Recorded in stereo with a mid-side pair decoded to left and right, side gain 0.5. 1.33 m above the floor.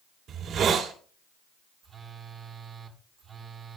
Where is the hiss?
60° right, 3.5 m.